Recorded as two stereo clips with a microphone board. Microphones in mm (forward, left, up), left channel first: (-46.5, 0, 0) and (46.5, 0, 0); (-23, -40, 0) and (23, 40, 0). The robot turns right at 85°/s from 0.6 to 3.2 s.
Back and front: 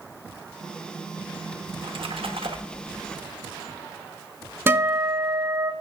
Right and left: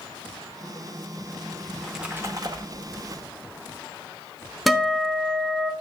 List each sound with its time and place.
1.7 s a splash: 50° right, 1.0 m; by 3.2 s 80° left, 1.0 m
4.7 s a guitar: 25° right, 0.9 m